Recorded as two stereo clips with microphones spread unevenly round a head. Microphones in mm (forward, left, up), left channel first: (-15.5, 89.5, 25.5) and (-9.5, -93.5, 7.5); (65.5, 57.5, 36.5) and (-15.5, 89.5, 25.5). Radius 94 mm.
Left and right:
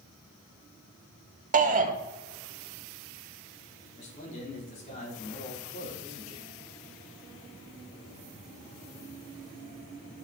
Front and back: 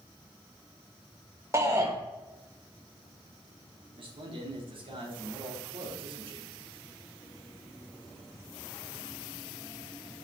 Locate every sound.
1.5 s a shout: 135° right, 1.4 m
4.0 s a man speaking: 145° left, 3.5 m